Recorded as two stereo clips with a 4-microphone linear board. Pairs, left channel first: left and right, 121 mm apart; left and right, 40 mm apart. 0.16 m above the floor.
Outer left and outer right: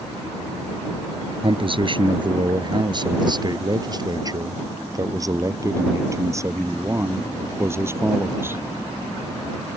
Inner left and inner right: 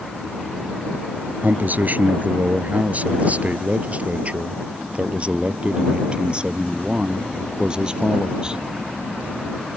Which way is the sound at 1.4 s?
50° right (ahead or behind).